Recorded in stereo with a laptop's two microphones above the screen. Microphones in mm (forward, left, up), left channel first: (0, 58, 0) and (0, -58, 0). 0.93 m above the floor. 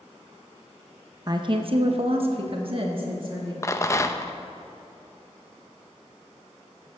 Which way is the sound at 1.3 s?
35° right (ahead or behind).